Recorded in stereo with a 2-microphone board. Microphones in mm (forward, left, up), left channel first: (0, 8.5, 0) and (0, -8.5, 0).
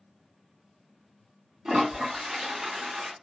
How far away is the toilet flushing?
About 2 m.